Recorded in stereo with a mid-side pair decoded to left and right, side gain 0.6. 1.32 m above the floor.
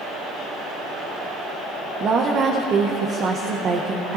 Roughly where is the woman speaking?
Ahead right.